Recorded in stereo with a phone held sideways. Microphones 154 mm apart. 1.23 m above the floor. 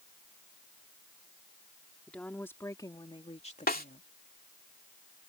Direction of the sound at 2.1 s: 5° left (ahead or behind).